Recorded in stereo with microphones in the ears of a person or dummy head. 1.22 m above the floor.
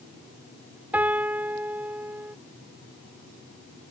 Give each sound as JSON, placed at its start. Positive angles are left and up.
{"t": 0.9, "sound": "a piano", "side_deg": -10}